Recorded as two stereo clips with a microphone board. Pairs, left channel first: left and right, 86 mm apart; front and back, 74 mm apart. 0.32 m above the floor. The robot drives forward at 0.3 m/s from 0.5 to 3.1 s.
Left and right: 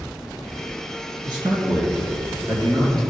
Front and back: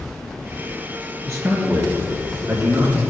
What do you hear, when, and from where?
1.2 s a man speaking: 125° right, 3.5 m; by 3.0 s 130° right, 4 m